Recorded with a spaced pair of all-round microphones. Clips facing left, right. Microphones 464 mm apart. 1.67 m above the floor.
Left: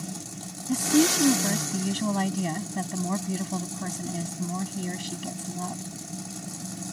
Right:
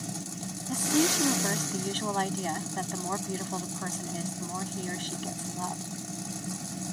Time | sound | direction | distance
0.7 | a woman speaking | 45° left (ahead or behind) | ?